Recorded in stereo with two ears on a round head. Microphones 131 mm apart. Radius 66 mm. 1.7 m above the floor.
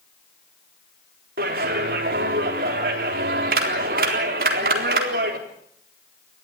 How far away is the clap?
About 4 m.